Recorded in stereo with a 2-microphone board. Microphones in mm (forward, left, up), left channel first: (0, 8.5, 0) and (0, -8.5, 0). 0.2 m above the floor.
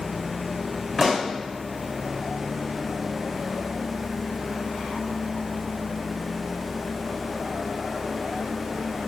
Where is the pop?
Centre (ahead or behind), 2.5 m.